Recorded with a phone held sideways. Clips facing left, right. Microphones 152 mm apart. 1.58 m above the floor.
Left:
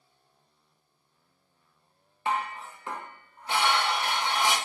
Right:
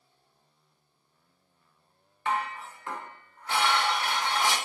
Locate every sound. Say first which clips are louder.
2.2 s dishes clattering: even; 20° left (ahead or behind), 0.7 m